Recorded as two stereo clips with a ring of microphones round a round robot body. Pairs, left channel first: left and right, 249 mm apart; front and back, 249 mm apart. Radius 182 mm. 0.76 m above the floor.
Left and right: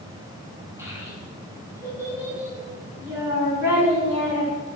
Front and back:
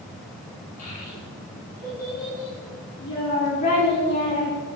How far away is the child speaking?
About 5.5 m.